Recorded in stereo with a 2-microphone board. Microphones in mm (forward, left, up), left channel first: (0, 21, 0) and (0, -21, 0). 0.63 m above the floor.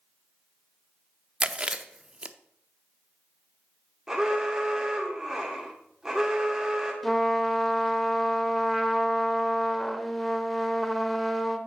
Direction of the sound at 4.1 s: 15° right (ahead or behind).